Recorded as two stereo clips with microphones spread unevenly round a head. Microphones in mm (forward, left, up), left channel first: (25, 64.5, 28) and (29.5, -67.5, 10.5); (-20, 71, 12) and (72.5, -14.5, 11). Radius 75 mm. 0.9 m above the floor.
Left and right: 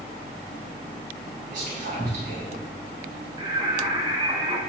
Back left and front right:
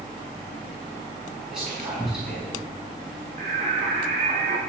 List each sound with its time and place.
1.5 s whispering: 130° right, 5.5 m
3.4 s singing: 25° right, 3 m